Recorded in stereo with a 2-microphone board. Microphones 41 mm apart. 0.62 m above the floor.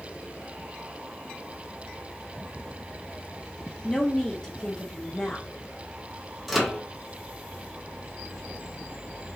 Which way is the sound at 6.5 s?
Centre (ahead or behind).